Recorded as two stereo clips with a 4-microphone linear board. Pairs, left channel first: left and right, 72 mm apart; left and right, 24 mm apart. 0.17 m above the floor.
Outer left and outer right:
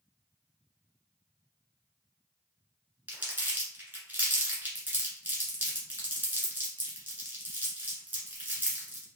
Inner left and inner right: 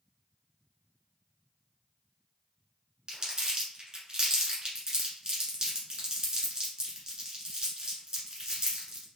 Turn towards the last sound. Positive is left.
turn(degrees=-25)  # may be behind; listen again after turning